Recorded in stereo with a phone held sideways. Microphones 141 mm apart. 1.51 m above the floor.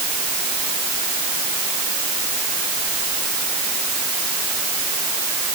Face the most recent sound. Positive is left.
No sound to turn to.